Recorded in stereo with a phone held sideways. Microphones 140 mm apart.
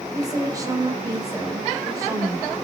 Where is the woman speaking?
25° right (ahead or behind), 4.5 m.